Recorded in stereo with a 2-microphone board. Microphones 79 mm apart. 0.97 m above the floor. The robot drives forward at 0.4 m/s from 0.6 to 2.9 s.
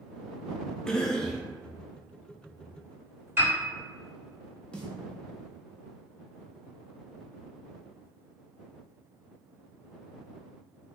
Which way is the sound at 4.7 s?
15° left (ahead or behind).